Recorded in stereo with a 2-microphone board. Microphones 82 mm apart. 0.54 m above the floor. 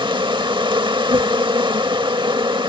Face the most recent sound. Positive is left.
turn(degrees=-80)